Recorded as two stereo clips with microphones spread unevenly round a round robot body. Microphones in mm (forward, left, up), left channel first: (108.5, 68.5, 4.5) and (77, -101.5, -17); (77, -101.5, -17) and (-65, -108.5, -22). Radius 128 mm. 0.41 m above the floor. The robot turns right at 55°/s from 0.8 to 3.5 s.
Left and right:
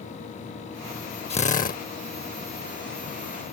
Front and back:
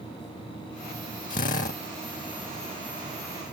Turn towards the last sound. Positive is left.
turn(degrees=145)